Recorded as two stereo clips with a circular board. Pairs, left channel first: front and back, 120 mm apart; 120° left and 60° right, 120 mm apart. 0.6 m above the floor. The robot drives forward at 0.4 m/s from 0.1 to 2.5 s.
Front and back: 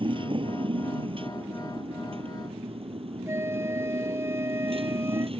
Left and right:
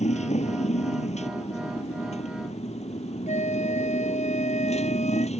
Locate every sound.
0.0 s a motorcycle: 135° left; by 5.4 s 145° left
3.3 s a flute: 115° left